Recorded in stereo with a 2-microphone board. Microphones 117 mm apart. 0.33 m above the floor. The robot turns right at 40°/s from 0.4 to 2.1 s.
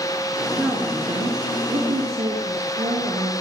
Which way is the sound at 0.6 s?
175° right.